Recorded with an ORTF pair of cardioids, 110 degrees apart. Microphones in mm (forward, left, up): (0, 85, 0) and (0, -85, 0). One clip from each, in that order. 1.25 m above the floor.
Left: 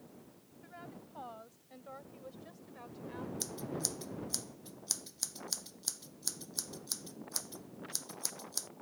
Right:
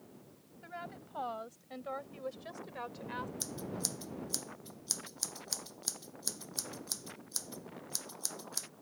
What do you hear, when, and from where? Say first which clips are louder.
0.6 s a woman speaking: right 6 dB; 50° right; by 3.3 s 65° right
3.4 s scissors: left 1 dB; 5° right